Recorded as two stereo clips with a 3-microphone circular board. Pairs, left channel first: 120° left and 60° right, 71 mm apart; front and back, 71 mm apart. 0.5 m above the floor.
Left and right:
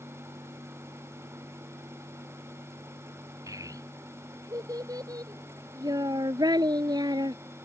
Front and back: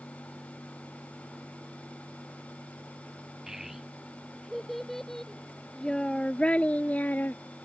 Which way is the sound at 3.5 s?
95° right.